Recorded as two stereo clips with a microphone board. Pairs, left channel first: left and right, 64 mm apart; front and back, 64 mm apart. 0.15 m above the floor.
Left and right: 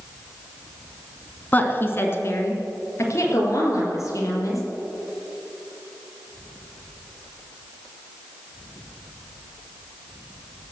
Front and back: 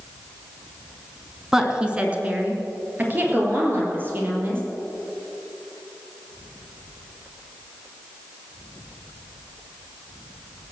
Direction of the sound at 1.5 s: 110° left.